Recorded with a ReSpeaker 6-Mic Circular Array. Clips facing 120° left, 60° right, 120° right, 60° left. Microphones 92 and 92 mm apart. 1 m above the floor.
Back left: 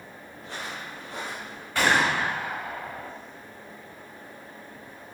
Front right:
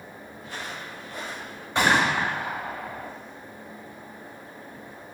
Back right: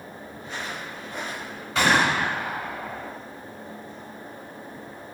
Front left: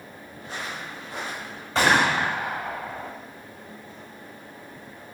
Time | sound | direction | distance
0.4 | footsteps | 110° left | 3 m
1.8 | a gunshot | 5° left | 2.0 m